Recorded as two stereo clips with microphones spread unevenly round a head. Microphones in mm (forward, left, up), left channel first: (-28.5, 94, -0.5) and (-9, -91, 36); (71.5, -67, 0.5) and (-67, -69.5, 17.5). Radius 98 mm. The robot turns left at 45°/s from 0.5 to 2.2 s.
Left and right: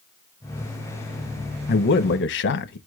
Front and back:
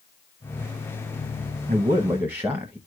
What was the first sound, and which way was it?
A man speaking, 125° left.